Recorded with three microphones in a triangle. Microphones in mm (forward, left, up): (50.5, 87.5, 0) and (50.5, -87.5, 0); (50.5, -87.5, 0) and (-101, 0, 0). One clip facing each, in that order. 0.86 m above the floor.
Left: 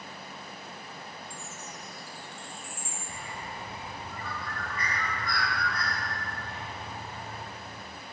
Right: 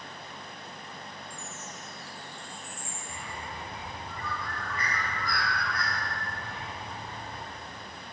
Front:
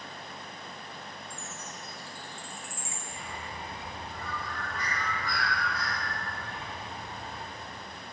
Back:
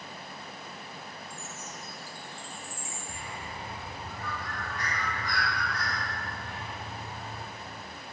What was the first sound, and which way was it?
A chime, 100° left.